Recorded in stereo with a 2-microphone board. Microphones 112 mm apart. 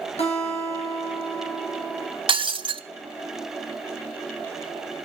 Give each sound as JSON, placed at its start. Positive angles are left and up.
{"t": 0.2, "sound": "a guitar", "side_deg": 65, "distance_m": 5.0}
{"t": 2.3, "sound": "breaking glass", "side_deg": -50, "distance_m": 0.5}